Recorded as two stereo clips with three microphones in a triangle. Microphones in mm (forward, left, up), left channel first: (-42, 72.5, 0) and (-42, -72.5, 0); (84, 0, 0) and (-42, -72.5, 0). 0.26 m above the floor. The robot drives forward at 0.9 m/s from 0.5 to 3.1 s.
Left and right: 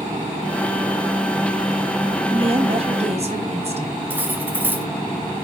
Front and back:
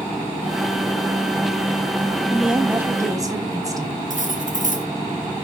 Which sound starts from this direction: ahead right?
A woman speaking, at 2.3 s.